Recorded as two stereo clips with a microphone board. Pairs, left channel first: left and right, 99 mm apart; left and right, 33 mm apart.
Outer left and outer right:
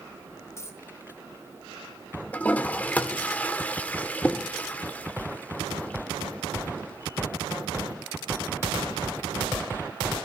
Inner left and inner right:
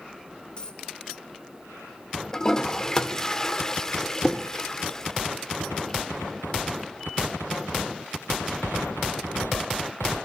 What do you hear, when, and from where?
0.6 s a dropped coin: 30° left (ahead or behind), 1.4 m
2.3 s a toilet flushing: 15° left (ahead or behind), 1.0 m